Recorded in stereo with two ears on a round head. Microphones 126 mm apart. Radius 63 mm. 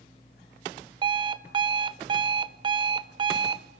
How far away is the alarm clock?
About 0.5 m.